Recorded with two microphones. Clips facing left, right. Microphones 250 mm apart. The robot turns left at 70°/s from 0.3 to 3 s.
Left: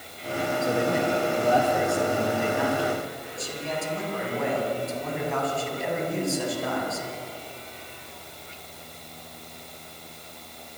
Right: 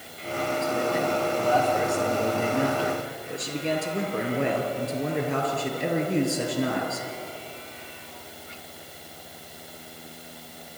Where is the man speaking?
85° left, 5 m; by 7.1 s 80° right, 5 m.